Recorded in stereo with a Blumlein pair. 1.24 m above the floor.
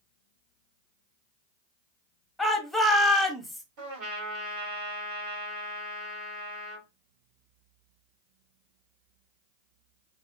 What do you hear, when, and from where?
2.4 s a shout: 5° left, 1.1 m
3.8 s a trumpet: 50° right, 1.7 m